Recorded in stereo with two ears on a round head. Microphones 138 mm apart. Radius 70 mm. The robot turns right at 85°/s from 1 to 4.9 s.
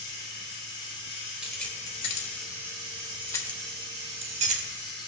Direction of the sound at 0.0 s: 60° left.